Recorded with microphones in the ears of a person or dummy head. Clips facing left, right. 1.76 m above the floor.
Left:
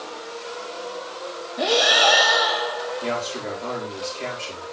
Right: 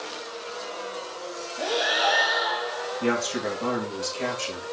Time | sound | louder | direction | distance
1.6 | breathing | left 6 dB | 70° left (ahead or behind) | 0.8 m
3.0 | a man speaking | right 6 dB | 75° right (ahead or behind) | 3.5 m